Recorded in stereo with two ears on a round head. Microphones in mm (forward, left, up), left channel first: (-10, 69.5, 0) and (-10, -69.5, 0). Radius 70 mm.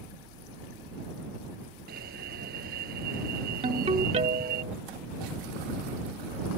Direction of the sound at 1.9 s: 70° right (ahead or behind).